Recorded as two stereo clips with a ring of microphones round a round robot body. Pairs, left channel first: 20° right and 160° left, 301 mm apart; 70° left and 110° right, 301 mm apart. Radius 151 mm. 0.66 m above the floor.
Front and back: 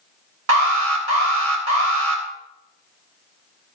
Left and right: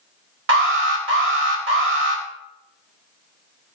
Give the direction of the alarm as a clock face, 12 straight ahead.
5 o'clock.